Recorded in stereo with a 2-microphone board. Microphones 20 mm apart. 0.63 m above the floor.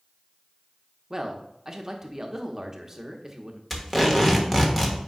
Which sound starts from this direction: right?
A man speaking, at 1.1 s.